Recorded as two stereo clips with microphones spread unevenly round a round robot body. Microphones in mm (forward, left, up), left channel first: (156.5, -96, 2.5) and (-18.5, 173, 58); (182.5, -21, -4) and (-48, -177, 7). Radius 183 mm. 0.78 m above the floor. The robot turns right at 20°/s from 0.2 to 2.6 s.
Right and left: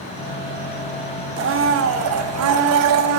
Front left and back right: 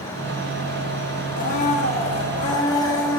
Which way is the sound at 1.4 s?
75° left.